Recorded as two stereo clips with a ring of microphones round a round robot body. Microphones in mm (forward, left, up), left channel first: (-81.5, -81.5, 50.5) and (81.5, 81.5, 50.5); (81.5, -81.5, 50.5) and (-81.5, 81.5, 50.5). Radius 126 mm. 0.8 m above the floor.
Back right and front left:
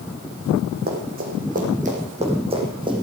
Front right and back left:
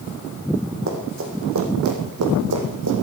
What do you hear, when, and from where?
0.9 s running footsteps: 95° left, 3.5 m; by 3.0 s 115° left, 3 m